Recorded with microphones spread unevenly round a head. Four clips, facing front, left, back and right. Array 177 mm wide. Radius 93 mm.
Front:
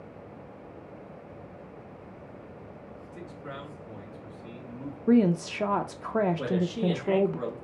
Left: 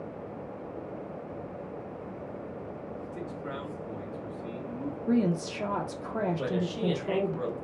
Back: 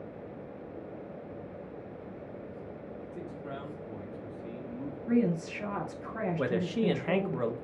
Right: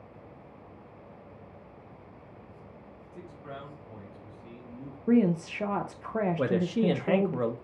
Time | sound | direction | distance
3.1 | a man speaking | 125° left | 1.5 m
5.1 | a woman speaking | 5° left | 0.6 m
6.4 | a man speaking | 105° right | 0.9 m